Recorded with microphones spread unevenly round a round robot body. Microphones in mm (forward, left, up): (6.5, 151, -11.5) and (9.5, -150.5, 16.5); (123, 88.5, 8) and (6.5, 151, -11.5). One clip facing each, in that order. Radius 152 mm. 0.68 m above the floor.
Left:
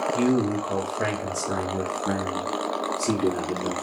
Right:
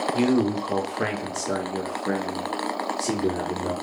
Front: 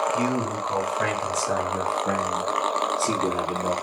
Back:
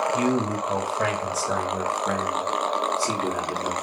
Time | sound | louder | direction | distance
0.1 | a man speaking | right 1 dB, back 2 dB | 165° right | 1.1 m